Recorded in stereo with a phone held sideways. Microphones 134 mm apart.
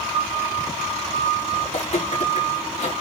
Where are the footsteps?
60° left (ahead or behind), 5.5 m; by 2.9 s 65° left (ahead or behind), 5.5 m.